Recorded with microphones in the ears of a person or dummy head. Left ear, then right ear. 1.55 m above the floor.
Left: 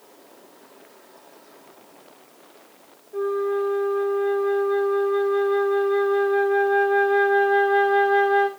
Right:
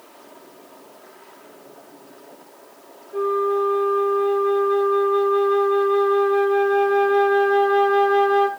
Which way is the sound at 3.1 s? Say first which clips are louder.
Right 3 dB; 10° right (ahead or behind).